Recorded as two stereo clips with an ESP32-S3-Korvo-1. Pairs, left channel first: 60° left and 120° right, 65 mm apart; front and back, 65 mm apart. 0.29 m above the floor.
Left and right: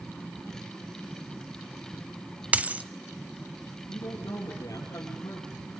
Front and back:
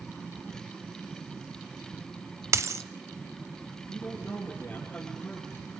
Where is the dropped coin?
Straight behind, 0.7 m.